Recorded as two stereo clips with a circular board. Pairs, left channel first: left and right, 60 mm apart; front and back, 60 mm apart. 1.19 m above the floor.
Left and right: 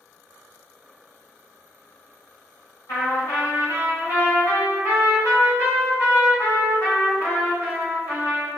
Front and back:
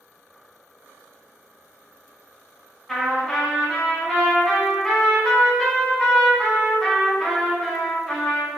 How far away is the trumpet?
About 1.4 m.